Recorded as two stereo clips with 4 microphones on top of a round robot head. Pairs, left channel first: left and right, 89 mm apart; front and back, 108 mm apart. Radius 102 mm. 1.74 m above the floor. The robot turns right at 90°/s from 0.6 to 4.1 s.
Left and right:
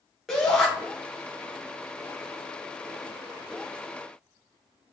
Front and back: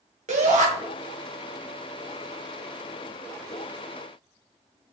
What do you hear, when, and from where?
0.3 s a shout: straight behind, 2.5 m; by 0.7 s 175° right, 2.5 m